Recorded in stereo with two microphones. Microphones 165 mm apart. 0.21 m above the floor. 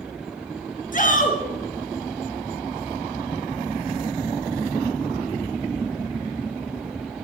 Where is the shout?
55° left (ahead or behind), 3.5 m.